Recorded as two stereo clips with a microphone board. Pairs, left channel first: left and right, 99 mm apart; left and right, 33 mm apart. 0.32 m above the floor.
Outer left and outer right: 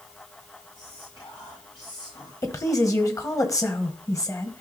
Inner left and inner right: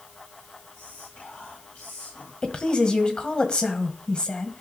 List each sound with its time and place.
0.8 s whispering: 65° left (ahead or behind), 5 m
2.4 s a woman speaking: 35° left (ahead or behind), 1.4 m